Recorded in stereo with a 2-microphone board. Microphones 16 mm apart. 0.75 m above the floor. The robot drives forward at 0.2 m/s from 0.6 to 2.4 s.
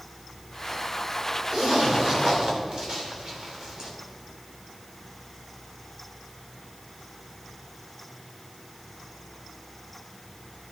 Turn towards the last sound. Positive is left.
turn(degrees=-75)  # may be behind; listen again after turning